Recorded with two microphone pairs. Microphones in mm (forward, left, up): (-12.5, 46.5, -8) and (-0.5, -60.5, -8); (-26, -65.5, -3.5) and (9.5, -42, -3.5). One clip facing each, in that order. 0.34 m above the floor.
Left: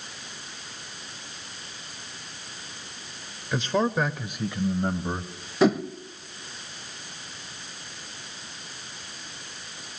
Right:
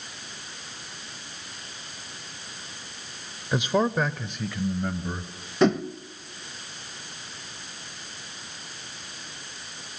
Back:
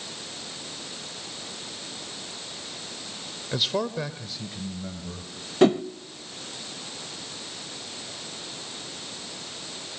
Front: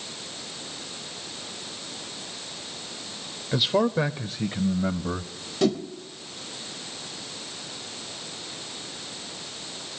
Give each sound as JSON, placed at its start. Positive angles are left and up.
{"t": 3.5, "sound": "a man speaking", "azimuth_deg": -55, "distance_m": 0.9}
{"t": 5.6, "sound": "a whoosh", "azimuth_deg": 180, "distance_m": 0.7}